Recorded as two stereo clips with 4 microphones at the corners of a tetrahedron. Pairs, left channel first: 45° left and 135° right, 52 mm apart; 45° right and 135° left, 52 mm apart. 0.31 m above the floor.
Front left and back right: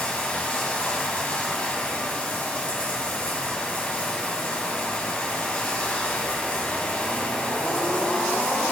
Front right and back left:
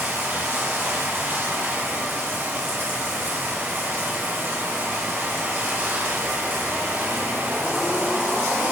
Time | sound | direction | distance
0.0 | running water | 110° left | 2.5 m